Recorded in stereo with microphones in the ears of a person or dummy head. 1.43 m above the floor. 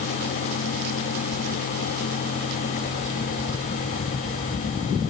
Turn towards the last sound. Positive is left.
No sound to turn to.